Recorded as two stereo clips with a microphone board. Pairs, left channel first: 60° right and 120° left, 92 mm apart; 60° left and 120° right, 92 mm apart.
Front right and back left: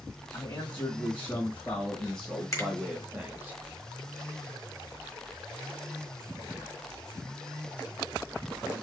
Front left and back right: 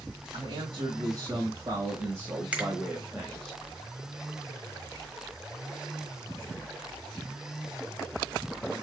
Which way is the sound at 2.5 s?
55° right.